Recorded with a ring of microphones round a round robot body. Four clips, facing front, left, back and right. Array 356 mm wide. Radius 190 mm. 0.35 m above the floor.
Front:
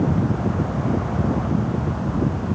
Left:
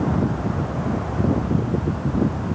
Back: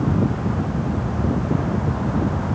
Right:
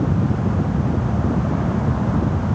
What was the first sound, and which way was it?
Only background noise.